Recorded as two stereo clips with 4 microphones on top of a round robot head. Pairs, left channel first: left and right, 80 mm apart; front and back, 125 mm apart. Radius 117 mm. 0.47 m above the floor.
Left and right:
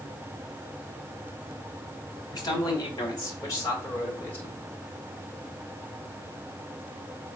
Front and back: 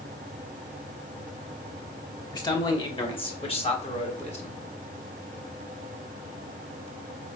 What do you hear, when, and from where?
2.3 s a man speaking: 55° left, 2 m; by 4.5 s 25° left, 2.5 m